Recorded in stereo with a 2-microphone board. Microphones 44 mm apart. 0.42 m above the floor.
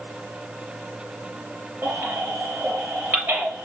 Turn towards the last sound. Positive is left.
turn(degrees=-35)  # may be behind; listen again after turning